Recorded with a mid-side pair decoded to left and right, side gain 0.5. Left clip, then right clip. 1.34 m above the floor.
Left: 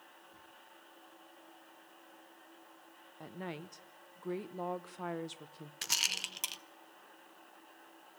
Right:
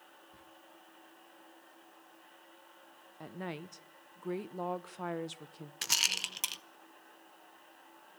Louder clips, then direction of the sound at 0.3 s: Even; 35° right.